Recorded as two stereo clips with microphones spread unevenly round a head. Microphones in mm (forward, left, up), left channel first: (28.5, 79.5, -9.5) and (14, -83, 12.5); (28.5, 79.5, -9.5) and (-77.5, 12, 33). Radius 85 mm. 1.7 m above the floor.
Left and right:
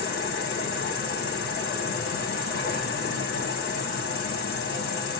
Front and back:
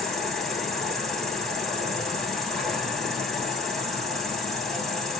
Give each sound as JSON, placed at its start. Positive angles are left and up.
{"t": 0.0, "sound": "an insect", "azimuth_deg": 125, "distance_m": 1.3}